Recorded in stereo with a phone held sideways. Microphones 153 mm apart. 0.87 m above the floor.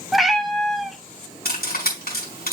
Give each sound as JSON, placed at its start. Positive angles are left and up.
{"t": 0.1, "sound": "a cat meowing", "side_deg": 0, "distance_m": 1.1}
{"t": 1.4, "sound": "cutlery clinking", "side_deg": 90, "distance_m": 5.0}